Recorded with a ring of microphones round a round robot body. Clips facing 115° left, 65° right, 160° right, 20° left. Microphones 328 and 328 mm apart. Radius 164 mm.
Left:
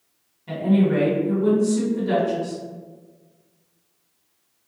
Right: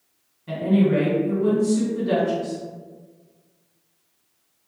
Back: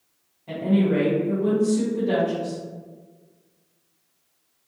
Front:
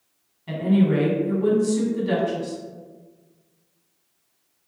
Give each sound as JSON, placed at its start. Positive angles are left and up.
{"t": 0.5, "sound": "a woman speaking", "azimuth_deg": 35, "distance_m": 1.2}